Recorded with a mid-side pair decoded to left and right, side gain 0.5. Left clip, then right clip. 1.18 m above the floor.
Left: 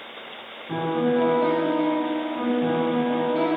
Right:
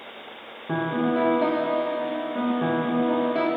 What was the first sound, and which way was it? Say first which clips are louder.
A piano: left 2 dB; 50° right.